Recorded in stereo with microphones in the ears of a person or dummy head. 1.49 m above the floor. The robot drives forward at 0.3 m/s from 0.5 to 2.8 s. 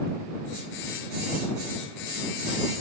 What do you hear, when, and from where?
Only background noise.